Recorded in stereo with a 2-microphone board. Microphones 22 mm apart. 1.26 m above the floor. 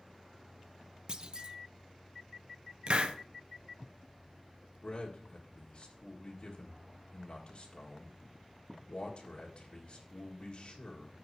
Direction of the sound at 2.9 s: 50° right (ahead or behind).